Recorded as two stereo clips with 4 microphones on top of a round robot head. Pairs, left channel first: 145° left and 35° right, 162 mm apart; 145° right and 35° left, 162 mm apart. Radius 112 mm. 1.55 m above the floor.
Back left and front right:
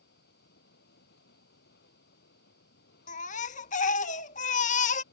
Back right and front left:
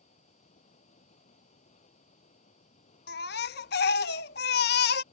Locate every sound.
0.0 s running water: 165° left
3.1 s a baby crying: 170° right